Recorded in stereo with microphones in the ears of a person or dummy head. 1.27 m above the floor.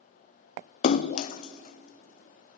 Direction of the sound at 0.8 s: 45° left (ahead or behind).